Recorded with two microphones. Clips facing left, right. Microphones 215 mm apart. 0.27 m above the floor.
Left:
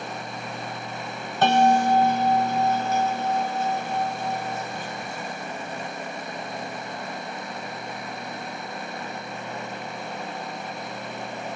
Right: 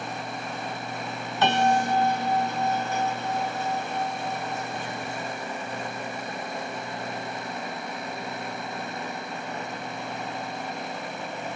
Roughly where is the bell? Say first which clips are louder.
Left 4 dB; left.